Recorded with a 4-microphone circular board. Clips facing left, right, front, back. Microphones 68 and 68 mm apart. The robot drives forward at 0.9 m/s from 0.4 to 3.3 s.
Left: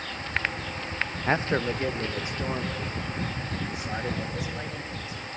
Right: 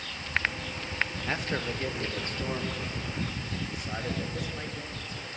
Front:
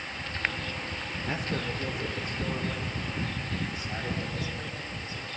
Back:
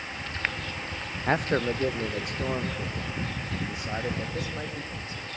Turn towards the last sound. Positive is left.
turn(degrees=170)